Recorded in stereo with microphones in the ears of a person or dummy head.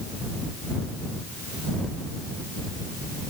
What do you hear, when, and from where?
Only background noise.